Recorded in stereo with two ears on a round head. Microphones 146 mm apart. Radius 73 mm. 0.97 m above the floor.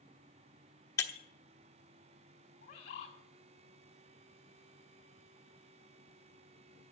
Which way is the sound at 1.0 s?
20° left (ahead or behind).